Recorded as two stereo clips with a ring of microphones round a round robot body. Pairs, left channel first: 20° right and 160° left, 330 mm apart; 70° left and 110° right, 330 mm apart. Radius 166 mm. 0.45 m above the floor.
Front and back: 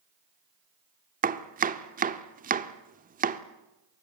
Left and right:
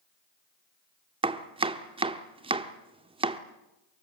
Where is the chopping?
170° right, 1.2 m.